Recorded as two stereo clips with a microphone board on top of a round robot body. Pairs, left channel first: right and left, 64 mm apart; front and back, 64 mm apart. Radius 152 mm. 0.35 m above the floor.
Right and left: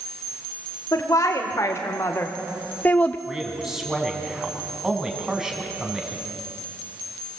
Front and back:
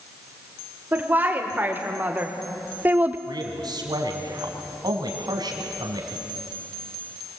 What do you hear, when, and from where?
0.9 s a woman speaking: 120° right, 2 m; by 3.2 s 140° right, 1.3 m
3.3 s a man speaking: 175° left, 3.5 m